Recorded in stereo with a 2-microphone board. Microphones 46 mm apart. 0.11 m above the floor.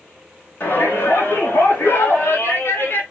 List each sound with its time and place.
0.6 s a shout: 45° left (ahead or behind), 8 m